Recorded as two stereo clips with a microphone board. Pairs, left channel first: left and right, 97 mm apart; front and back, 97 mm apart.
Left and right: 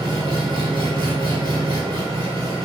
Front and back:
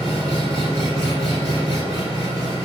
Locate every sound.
0.0 s an engine running: 125° right, 3.5 m